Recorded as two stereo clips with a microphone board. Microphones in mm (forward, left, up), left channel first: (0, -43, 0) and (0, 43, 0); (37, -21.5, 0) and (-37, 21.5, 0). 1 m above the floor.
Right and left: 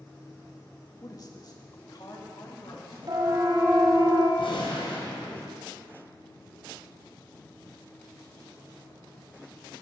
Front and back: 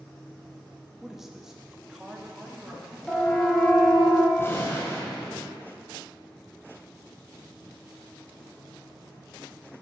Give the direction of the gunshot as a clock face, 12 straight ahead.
3 o'clock.